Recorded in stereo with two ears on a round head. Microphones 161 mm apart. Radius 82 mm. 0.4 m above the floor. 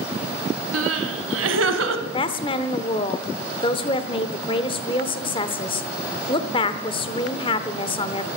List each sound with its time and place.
0.7 s crying: 85° right, 1.2 m
2.1 s a woman speaking: 30° left (ahead or behind), 0.8 m